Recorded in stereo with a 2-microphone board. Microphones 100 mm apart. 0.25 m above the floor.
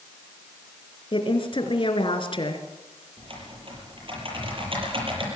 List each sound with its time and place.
1.1 s a woman speaking: 55° left (ahead or behind), 3 m
3.2 s typing on a keyboard: 55° right (ahead or behind), 8 m